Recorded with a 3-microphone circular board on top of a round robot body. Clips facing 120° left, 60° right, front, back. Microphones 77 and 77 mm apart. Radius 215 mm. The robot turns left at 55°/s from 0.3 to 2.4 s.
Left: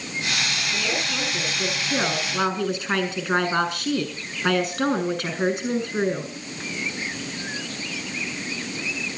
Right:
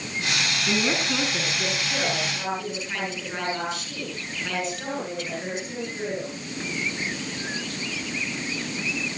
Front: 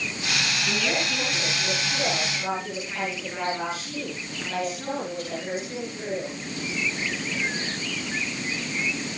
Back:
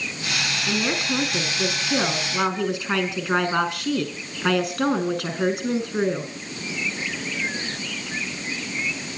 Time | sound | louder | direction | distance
0.7 | a woman speaking | right 3 dB, back 4 dB | 105° right | 7 m